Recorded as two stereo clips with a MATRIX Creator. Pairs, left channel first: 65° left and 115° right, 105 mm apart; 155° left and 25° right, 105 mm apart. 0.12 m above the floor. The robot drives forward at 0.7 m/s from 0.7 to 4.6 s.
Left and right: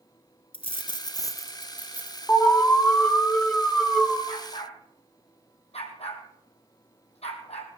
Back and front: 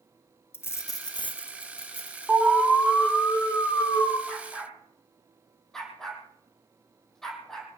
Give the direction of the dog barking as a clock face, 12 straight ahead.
10 o'clock.